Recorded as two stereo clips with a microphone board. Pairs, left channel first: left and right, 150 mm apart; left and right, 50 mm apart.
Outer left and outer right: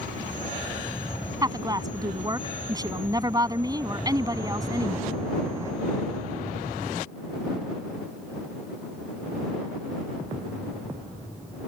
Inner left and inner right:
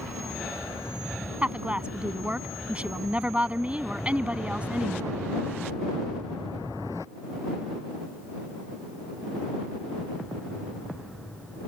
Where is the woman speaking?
25° right (ahead or behind).